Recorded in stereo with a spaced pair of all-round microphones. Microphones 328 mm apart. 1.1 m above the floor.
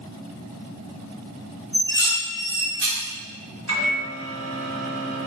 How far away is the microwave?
About 1.1 m.